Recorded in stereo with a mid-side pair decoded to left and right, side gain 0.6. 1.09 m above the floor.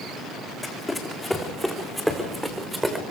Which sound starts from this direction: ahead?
Running footsteps, at 0.6 s.